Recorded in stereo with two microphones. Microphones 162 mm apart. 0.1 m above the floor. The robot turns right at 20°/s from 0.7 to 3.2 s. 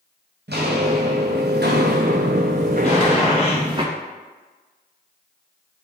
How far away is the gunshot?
About 2.0 m.